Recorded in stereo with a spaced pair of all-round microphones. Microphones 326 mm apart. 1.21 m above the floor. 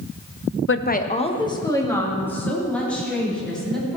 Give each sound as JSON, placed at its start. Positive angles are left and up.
{"t": 0.7, "sound": "a woman speaking", "side_deg": 40, "distance_m": 0.5}